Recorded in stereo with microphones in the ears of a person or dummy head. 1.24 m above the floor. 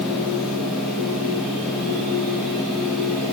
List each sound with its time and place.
0.0 s a machine running: centre (ahead or behind), 3 m